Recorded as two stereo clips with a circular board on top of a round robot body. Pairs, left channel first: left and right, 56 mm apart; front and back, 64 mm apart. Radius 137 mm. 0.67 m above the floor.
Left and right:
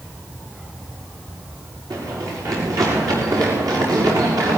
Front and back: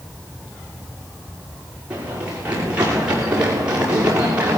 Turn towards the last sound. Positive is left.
turn(degrees=-110)